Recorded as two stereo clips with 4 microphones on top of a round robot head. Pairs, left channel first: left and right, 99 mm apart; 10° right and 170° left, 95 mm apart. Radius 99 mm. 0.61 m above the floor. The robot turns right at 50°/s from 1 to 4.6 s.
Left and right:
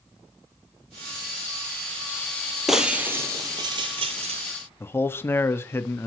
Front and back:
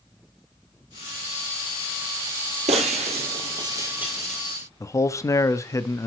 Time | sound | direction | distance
2.7 | breaking glass | 175° right | 0.9 m
4.8 | a man speaking | 35° left | 0.8 m